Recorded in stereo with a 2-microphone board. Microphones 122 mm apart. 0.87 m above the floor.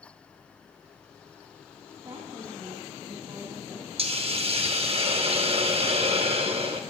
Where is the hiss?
50° right (ahead or behind), 0.8 m.